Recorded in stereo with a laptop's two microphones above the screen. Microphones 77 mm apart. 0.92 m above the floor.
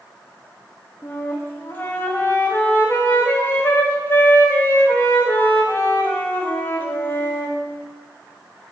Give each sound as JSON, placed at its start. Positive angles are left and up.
{"t": 1.0, "sound": "a flute", "side_deg": 30, "distance_m": 0.6}